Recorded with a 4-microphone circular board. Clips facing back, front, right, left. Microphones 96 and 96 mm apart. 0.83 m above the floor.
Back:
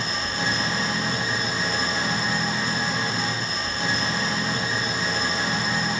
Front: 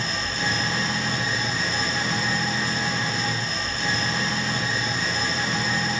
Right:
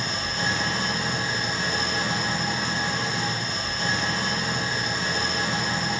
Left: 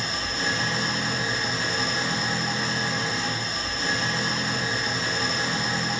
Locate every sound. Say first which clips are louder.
0.0 s an engine running: back 1 dB, right 1 dB; 125° right, 2.5 m